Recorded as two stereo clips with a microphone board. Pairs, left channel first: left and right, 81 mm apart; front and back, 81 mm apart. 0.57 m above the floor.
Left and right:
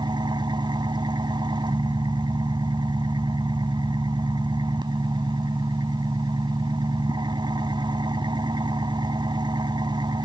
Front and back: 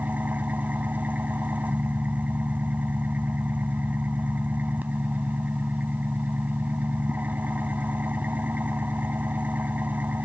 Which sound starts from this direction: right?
An engine running, at 0.0 s.